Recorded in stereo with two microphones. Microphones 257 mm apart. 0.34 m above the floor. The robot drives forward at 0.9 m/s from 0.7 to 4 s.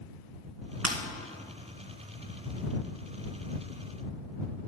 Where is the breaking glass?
75° right (ahead or behind), 2 m.